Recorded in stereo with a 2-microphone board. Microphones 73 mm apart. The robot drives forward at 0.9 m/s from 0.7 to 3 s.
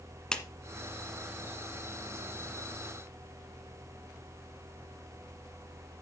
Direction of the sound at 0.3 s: 10° left (ahead or behind).